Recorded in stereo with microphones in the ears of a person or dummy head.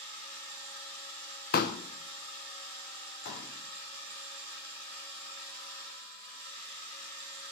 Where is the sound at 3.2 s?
60° left (ahead or behind), 3 m.